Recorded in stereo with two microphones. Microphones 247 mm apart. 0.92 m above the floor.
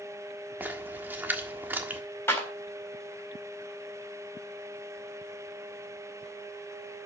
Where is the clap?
10° left (ahead or behind), 4 m.